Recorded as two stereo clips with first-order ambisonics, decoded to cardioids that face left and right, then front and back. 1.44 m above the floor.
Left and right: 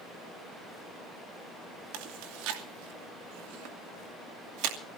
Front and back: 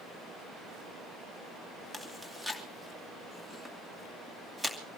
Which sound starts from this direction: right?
Chewing, at 1.9 s.